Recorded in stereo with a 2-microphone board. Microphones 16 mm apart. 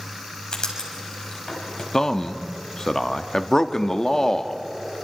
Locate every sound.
0.5 s writing: 50° left (ahead or behind), 5 m
1.9 s a man speaking: 35° left (ahead or behind), 1.0 m